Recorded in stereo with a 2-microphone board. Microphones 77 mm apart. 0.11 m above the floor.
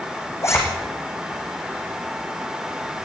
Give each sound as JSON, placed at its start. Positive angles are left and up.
{"t": 0.4, "sound": "a zipper", "side_deg": 35, "distance_m": 5.5}